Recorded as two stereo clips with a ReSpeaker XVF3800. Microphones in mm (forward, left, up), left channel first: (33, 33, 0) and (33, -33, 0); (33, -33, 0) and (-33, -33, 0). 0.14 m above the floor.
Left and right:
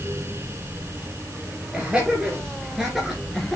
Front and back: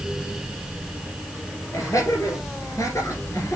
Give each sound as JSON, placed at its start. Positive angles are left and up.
{"t": 1.7, "sound": "laughter", "azimuth_deg": -15, "distance_m": 3.0}